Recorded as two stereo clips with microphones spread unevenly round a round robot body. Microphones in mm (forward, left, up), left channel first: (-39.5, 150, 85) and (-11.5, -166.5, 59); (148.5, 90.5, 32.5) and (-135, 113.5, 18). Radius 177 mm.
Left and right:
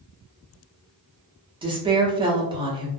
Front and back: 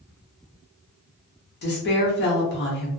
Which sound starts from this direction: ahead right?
A woman speaking, at 1.6 s.